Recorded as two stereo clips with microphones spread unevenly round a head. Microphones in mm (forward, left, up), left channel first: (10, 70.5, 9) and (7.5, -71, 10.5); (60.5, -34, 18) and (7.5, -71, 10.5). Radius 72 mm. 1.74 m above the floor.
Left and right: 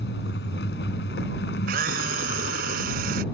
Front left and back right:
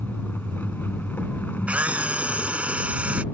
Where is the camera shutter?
75° right.